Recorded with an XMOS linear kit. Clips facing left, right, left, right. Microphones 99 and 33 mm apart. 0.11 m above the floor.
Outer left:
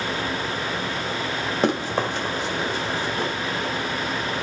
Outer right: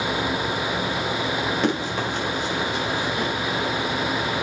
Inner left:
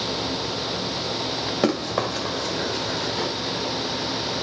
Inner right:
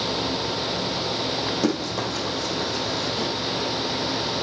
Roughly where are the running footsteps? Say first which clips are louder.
Outer left 1 dB, inner left 2 dB; left.